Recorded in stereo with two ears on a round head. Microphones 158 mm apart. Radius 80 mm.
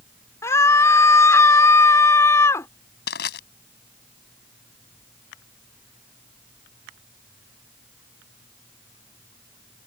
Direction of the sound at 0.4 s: 15° left (ahead or behind).